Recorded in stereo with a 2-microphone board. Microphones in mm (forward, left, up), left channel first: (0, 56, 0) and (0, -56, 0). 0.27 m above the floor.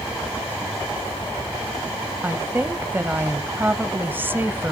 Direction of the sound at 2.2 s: 20° right (ahead or behind).